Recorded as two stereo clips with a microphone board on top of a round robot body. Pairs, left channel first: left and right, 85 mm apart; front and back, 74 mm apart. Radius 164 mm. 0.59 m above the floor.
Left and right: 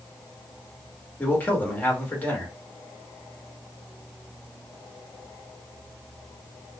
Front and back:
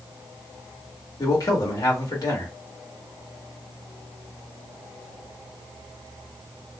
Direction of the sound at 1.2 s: 25° left.